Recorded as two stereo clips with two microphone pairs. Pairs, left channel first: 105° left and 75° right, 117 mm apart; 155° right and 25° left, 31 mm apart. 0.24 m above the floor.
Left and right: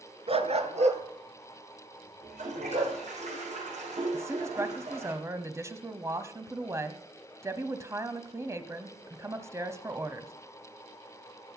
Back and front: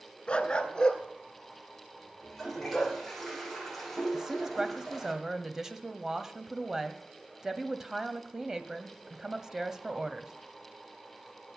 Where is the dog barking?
100° right, 1.3 m; by 3.0 s 75° right, 5 m.